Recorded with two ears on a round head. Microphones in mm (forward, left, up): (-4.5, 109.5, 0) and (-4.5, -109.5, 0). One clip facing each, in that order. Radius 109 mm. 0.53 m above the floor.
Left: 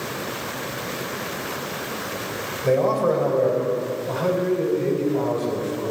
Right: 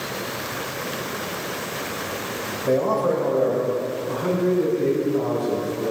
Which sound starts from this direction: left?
A man speaking, at 2.6 s.